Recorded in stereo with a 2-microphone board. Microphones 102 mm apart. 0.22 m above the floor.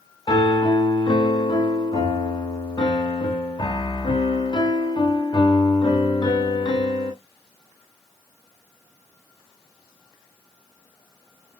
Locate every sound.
0.3 s a piano: 50° left (ahead or behind), 0.7 m